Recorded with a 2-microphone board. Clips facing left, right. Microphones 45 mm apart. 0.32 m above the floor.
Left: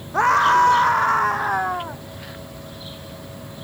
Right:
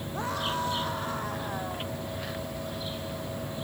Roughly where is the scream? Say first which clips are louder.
Left 17 dB; left.